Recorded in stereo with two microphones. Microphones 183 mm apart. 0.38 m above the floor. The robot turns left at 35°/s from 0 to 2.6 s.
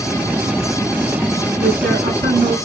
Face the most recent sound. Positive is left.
turn(degrees=-90)